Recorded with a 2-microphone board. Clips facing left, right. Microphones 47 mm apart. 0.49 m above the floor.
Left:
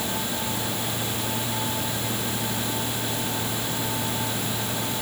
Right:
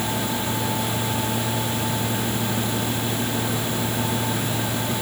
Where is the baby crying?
No baby crying in this recording.